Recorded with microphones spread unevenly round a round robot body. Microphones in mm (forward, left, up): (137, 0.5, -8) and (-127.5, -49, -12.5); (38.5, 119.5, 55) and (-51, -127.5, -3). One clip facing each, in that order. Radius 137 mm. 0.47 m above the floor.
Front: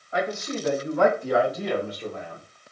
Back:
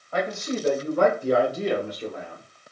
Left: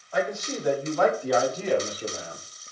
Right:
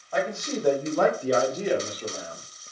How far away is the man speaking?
About 2 m.